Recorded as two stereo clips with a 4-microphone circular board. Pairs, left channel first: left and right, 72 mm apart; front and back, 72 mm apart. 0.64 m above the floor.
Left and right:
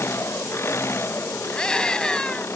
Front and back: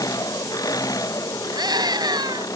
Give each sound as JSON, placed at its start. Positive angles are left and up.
{"t": 0.0, "sound": "an engine running", "azimuth_deg": 35}
{"t": 1.5, "sound": "a scream", "azimuth_deg": 170}